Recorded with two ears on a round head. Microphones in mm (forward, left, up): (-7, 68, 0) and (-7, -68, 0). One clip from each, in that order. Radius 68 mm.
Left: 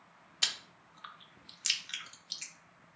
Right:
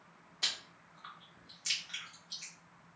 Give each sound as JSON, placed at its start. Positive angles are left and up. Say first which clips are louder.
{"t": 0.4, "sound": "chewing", "louder": "left 3 dB", "side_deg": 55, "distance_m": 0.6}